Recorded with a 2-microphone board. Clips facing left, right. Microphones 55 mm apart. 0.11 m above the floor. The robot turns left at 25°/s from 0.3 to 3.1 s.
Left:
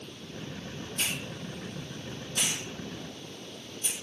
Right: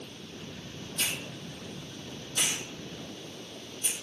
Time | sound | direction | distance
1.0 | a hiss | 35° left (ahead or behind) | 2.5 m